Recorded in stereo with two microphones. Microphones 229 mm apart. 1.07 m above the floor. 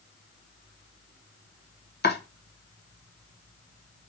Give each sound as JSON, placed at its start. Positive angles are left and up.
{"t": 2.0, "sound": "chopping", "side_deg": 45, "distance_m": 1.0}